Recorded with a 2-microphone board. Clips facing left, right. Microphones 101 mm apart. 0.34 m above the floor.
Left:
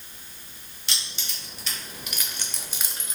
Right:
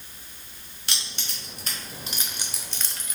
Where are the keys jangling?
60° right (ahead or behind), 1.2 m; by 3.2 s 30° left (ahead or behind), 0.6 m.